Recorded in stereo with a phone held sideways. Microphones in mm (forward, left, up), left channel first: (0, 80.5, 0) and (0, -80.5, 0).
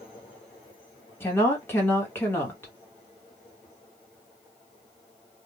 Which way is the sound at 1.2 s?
15° left (ahead or behind).